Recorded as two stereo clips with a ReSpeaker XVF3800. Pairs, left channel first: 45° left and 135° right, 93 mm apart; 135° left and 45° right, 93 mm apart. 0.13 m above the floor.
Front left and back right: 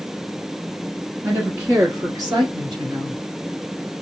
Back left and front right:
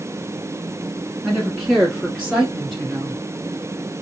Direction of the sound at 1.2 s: 120° right.